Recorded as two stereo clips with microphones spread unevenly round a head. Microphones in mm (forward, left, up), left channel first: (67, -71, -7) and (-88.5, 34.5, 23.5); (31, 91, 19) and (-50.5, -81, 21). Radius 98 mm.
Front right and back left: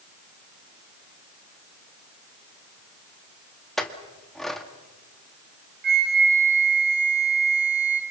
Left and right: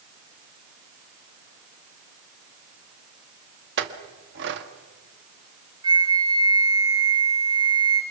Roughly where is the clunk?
I don't hear a clunk.